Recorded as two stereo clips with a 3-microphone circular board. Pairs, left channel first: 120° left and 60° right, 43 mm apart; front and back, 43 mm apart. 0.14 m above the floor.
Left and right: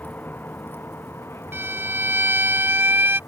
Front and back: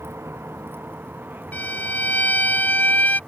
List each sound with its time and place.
0.0 s a vehicle: 165° left; by 3.3 s 115° left
1.5 s a violin: 40° right